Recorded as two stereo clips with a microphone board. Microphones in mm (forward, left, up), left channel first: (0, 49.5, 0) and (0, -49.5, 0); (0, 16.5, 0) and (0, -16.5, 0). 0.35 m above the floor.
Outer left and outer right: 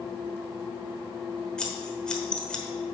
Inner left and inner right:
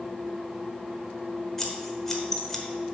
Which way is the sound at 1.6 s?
10° left (ahead or behind).